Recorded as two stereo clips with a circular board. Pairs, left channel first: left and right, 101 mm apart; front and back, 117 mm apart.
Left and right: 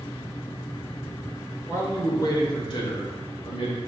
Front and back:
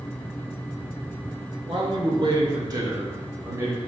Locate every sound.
1.7 s a man speaking: 150° left, 1.9 m; by 3.8 s 115° left, 3 m